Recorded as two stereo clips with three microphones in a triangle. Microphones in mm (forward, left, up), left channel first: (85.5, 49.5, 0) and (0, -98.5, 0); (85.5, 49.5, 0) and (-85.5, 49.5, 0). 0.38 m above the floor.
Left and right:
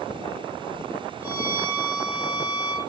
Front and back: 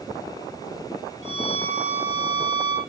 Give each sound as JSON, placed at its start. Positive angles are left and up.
{"t": 1.2, "sound": "a violin", "azimuth_deg": 125, "distance_m": 5.0}